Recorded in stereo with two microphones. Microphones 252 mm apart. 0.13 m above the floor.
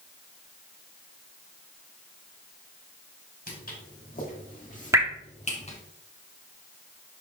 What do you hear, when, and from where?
3.5 s footsteps: 35° left (ahead or behind), 3.5 m; by 5.8 s 25° left (ahead or behind), 2.0 m
4.9 s dripping: 10° right (ahead or behind), 1.1 m